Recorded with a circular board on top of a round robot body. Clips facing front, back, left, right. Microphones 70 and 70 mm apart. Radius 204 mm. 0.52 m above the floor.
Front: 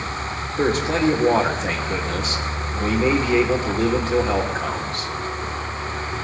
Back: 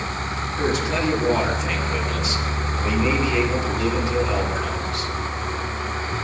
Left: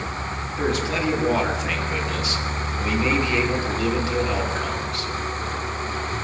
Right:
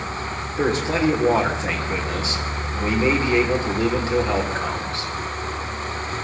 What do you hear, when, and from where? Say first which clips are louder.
0.6 s a man speaking: front 3 dB, right 3 dB; 35° right, 3 m